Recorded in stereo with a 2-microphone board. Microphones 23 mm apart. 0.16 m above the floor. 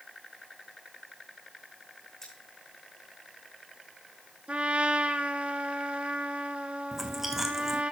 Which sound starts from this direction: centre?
Chewing, at 6.9 s.